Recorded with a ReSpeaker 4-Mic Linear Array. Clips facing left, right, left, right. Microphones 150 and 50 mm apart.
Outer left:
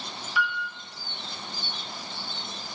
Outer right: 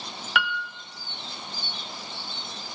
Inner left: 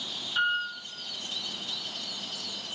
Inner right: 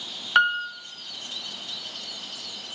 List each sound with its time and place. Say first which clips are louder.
0.3 s a piano: outer right 1 dB, inner right 7 dB; 75° right (ahead or behind), 0.9 m